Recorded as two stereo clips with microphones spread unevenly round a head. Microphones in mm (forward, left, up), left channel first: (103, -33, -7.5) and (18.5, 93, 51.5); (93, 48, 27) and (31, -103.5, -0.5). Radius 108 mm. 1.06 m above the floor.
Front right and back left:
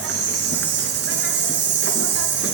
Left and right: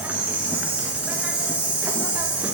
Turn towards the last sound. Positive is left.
turn(degrees=165)